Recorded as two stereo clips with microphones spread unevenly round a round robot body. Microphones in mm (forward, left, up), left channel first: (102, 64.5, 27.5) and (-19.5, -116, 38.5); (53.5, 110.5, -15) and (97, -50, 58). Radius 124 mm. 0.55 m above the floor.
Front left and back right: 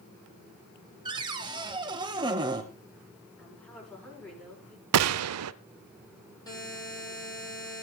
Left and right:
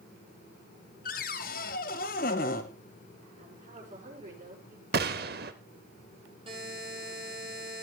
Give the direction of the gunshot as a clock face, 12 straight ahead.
4 o'clock.